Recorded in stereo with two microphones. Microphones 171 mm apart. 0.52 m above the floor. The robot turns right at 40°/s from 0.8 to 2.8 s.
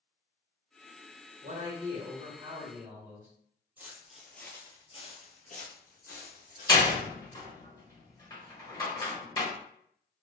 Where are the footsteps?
10° right (ahead or behind), 0.8 m; by 7.0 s 60° left (ahead or behind), 1.3 m.